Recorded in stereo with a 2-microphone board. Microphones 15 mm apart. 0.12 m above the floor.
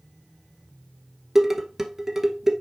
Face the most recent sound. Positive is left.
turn(degrees=-20)  # may be behind; listen again after turning